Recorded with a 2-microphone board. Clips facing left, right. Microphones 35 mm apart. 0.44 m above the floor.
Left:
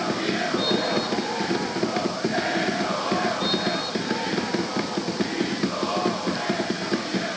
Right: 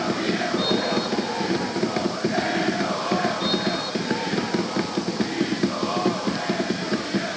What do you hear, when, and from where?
Only background noise.